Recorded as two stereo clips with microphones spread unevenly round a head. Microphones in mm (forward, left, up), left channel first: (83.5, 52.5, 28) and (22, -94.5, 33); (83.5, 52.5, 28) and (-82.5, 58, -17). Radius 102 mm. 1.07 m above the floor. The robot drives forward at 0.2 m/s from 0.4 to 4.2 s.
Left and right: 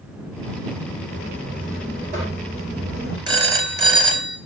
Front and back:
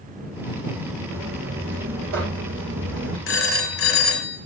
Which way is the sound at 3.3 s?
50° right.